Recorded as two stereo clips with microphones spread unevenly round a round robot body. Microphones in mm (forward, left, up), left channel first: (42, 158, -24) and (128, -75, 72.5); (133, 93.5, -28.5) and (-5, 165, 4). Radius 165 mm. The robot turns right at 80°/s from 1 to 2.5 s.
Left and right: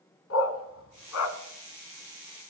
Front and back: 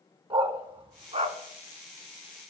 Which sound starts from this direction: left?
A dog barking, at 0.3 s.